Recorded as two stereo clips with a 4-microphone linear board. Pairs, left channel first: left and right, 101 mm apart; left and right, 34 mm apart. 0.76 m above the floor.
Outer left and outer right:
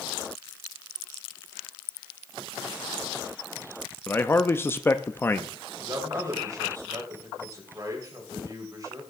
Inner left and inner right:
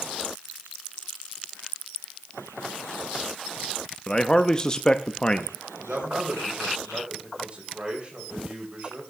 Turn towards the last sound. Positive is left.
turn(degrees=-40)  # may be behind; listen again after turning